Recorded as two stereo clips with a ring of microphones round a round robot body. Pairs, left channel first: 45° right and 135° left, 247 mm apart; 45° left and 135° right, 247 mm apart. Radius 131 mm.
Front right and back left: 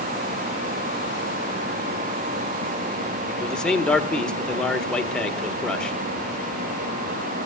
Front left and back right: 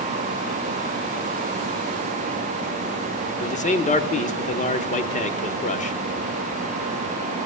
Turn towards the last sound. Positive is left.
turn(degrees=40)